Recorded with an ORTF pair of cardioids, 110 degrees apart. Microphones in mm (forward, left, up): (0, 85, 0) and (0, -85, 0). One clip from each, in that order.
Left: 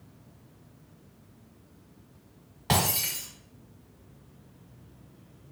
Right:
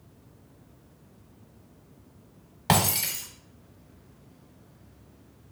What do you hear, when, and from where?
2.7 s breaking glass: 45° right, 1.4 m